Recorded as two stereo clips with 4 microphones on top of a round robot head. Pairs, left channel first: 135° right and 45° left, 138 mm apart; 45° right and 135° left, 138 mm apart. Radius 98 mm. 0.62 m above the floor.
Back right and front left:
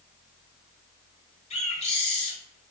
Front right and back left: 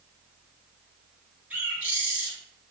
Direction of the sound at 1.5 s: 150° right.